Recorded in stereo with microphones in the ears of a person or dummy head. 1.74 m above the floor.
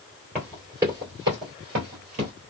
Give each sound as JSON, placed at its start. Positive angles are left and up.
{"t": 0.3, "sound": "running footsteps", "side_deg": 0, "distance_m": 2.0}